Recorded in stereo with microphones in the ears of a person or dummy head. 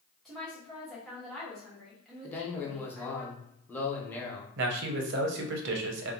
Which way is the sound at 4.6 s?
70° right (ahead or behind).